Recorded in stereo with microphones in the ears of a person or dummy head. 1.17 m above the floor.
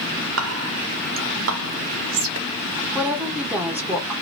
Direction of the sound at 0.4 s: 70° right (ahead or behind).